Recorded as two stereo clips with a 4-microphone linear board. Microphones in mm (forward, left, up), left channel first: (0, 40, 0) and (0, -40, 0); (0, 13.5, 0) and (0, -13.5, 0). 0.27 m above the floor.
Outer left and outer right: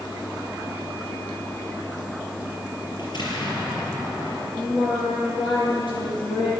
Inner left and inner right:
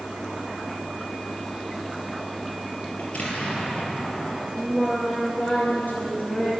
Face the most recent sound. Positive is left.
turn(degrees=80)